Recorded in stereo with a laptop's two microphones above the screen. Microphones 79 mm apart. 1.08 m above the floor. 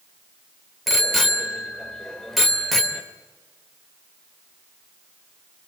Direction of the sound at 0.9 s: Centre (ahead or behind).